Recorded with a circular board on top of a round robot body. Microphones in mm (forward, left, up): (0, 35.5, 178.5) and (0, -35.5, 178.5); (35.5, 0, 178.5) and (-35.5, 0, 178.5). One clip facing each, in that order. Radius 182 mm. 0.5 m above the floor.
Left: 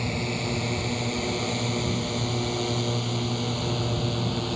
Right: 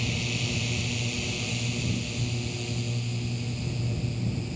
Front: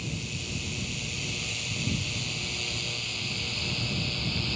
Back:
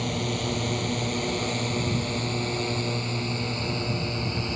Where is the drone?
145° left; by 4.6 s 115° left.